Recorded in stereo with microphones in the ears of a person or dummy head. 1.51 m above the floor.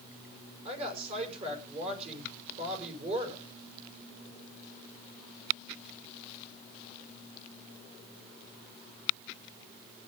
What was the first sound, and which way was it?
A woman speaking, 40° right (ahead or behind).